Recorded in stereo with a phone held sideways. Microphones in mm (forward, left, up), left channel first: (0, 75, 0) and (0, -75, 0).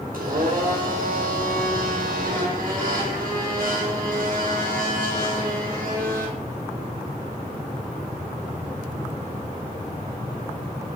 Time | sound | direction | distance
0.1 | a blender | 75° right (ahead or behind) | 4.5 m